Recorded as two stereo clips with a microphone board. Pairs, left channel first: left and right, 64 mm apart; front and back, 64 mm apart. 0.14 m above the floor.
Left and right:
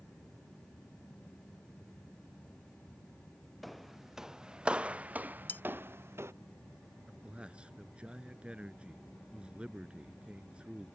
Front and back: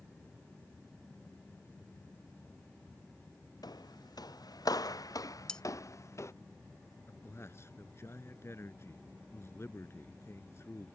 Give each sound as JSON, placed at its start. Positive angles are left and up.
{"t": 3.6, "sound": "footsteps", "azimuth_deg": 0}
{"t": 5.5, "sound": "cutlery clinking", "azimuth_deg": 70}
{"t": 7.1, "sound": "a man speaking", "azimuth_deg": -25}